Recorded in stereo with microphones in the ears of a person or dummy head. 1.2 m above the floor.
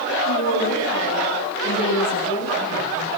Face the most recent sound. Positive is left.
turn(degrees=35)  # may be behind; listen again after turning